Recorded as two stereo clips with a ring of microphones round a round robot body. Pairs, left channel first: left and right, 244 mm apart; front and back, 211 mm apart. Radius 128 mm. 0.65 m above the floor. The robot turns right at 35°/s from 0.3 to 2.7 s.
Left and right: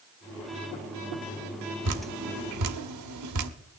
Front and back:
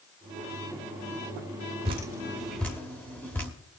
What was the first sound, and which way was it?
Dripping, 115° right.